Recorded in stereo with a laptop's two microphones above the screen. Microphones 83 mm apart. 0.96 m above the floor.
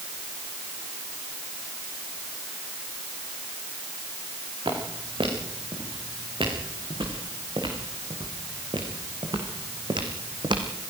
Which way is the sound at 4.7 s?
80° right.